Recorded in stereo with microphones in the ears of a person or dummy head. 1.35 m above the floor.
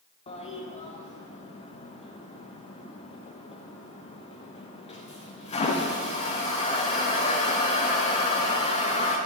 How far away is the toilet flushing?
About 0.6 m.